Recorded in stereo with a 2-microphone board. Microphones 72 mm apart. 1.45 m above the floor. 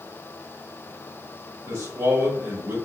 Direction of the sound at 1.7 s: 60° right (ahead or behind).